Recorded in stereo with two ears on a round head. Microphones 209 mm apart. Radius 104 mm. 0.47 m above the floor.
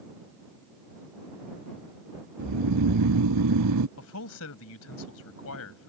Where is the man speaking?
70° left (ahead or behind).